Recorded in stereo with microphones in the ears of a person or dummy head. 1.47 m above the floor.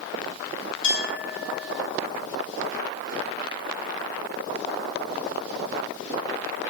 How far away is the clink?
About 2.5 m.